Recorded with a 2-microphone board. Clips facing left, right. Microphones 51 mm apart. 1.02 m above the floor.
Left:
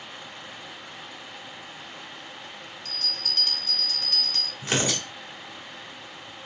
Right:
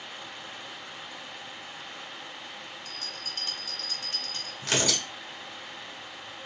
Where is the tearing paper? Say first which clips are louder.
Left 1 dB; 20° left (ahead or behind), 1.4 m.